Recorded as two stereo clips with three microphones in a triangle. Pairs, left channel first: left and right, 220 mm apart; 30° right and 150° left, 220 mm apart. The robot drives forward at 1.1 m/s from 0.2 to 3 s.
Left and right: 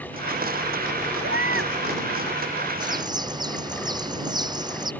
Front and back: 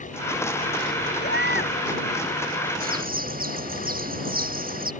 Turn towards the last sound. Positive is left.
turn(degrees=-160)